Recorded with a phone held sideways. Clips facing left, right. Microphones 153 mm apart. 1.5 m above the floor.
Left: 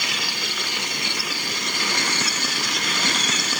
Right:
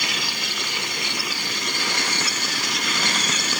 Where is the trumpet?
No trumpet in this recording.